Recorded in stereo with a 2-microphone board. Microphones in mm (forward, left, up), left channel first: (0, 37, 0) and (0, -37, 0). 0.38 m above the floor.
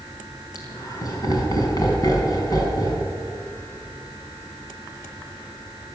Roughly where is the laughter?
Left.